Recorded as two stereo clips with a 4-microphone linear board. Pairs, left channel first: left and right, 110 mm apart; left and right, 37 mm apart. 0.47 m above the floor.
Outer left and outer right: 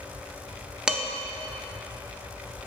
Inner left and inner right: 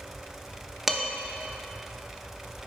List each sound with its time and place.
0.9 s dishes clattering: 10° right (ahead or behind), 0.6 m